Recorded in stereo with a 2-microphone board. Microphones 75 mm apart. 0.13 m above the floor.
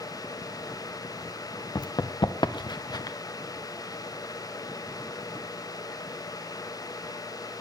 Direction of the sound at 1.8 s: 65° left (ahead or behind).